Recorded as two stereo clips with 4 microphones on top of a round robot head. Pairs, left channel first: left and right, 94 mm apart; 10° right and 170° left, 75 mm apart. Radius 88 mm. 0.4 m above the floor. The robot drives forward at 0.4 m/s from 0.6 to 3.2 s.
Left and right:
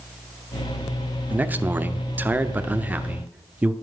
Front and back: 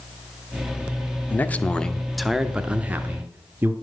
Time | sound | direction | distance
1.3 | a man speaking | 40° right | 0.8 m